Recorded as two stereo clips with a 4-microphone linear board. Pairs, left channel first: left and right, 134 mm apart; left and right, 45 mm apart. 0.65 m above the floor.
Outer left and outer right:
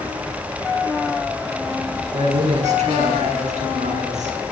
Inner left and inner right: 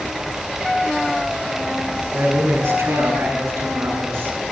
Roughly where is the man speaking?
Right.